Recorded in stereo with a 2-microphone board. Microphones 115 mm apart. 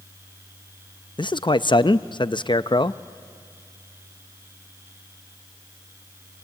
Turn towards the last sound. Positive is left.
turn(degrees=45)  # may be behind; listen again after turning